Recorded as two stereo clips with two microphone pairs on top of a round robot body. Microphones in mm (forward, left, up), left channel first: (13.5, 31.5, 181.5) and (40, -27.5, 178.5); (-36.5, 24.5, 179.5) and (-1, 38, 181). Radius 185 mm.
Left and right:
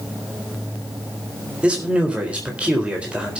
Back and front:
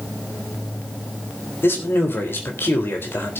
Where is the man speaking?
140° right, 4 m.